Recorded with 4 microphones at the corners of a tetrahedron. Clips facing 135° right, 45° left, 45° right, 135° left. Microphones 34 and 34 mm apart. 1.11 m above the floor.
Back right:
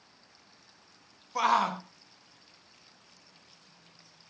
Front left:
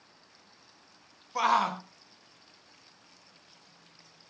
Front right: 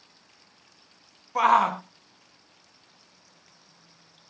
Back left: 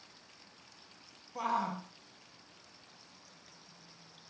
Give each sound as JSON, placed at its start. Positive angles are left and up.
{"t": 1.4, "sound": "a shout", "azimuth_deg": -45, "distance_m": 1.0}